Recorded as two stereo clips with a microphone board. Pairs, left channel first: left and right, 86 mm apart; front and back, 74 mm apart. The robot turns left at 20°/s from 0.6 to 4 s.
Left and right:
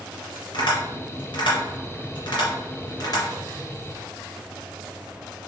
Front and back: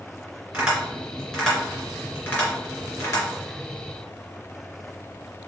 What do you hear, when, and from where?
0.5 s tapping: 100° left, 2.5 m; by 3.2 s 50° left, 2.5 m